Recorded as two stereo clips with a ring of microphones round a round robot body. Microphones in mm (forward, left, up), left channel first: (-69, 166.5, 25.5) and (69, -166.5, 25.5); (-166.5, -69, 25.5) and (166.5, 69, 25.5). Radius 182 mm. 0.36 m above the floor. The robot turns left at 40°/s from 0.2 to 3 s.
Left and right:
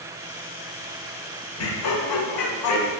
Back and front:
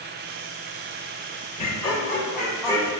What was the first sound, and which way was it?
Laughter, 140° left.